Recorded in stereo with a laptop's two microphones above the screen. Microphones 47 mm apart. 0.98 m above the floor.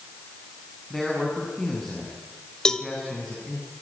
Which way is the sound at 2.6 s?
15° left (ahead or behind).